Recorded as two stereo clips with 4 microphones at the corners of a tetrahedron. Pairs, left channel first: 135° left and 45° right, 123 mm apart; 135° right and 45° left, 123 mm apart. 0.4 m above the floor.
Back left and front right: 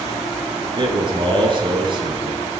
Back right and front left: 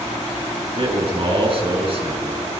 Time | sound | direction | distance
0.8 | a man speaking | 5° left | 4.5 m